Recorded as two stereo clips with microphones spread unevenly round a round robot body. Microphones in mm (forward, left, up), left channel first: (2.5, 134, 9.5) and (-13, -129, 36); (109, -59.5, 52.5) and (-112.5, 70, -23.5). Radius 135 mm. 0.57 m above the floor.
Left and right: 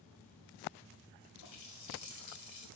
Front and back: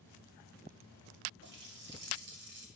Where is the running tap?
105° left, 1.7 m.